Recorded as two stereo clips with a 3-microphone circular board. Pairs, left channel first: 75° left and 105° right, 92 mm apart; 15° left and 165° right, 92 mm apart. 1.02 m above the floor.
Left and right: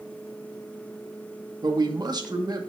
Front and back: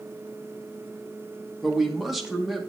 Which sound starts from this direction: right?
A man speaking, at 1.6 s.